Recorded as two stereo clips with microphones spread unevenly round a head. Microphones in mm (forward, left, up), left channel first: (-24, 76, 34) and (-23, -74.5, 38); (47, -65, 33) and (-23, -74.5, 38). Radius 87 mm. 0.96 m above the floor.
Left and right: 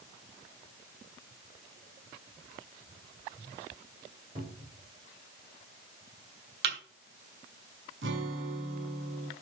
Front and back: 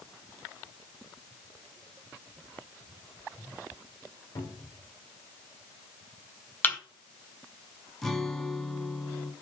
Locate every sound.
4.3 s a cupboard door: 30° right, 4 m
6.6 s a thud: 60° right, 3 m
8.0 s a guitar: 80° right, 2 m